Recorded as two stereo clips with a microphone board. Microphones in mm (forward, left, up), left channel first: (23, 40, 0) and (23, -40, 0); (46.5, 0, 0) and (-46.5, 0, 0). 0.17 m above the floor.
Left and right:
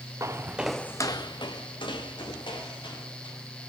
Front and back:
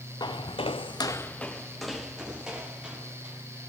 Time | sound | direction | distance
0.2 | footsteps | 35° right | 1.0 m